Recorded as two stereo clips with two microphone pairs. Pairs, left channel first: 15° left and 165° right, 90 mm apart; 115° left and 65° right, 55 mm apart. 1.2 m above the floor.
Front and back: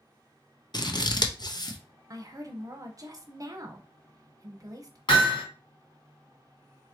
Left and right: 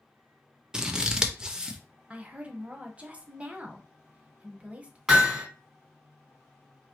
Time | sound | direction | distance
0.7 | scissors | 15° left | 0.5 m
2.1 | a woman speaking | 125° right | 0.8 m
5.1 | hammering | 20° left | 2 m